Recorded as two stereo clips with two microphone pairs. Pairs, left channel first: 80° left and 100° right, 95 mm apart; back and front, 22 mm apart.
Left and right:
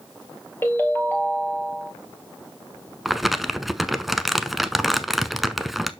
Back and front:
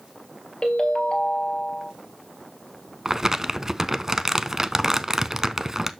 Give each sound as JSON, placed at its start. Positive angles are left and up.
{"t": 0.6, "sound": "a ringtone", "azimuth_deg": 145, "distance_m": 1.7}
{"t": 3.0, "sound": "crumpling", "azimuth_deg": -10, "distance_m": 0.6}